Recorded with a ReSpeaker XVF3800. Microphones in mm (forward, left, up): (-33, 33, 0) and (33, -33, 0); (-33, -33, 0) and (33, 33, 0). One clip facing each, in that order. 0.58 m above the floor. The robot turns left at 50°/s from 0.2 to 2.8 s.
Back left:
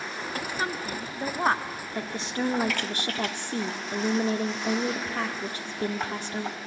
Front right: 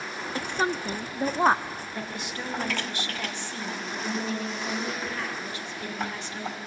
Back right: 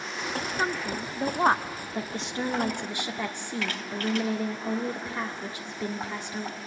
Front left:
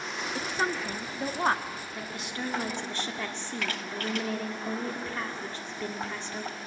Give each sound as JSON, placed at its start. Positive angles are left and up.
{"t": 0.3, "sound": "a woman speaking", "azimuth_deg": -40, "distance_m": 0.8}
{"t": 1.9, "sound": "a woman speaking", "azimuth_deg": -170, "distance_m": 1.6}